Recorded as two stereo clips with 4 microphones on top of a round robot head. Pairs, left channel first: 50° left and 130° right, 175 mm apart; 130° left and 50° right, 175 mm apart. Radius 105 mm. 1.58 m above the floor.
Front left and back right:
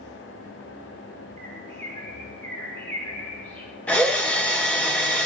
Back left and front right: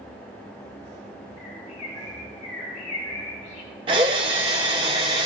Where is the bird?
125° left, 5 m.